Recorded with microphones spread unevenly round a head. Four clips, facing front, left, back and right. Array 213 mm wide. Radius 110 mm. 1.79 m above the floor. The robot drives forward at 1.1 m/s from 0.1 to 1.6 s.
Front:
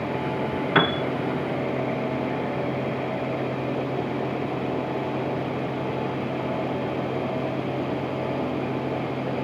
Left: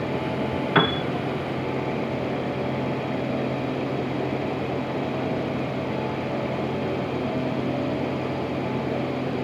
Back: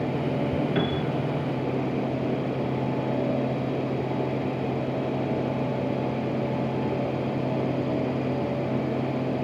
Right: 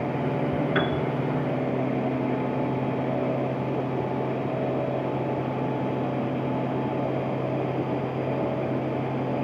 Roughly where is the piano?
Ahead left.